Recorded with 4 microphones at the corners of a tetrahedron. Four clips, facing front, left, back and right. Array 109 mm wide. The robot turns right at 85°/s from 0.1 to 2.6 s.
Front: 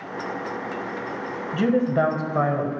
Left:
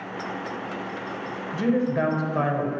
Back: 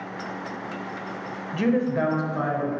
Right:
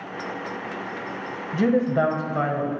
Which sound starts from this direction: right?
A woman speaking, at 1.5 s.